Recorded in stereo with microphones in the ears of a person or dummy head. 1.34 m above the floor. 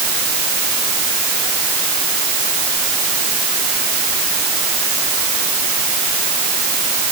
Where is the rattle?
I don't hear a rattle.